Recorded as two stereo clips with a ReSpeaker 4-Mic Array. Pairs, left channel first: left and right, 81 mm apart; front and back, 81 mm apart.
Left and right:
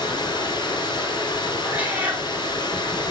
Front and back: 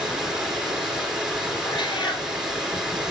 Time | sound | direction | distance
0.0 | running water | 100° left | 2.5 m
1.6 | a cat meowing | 20° right | 2.5 m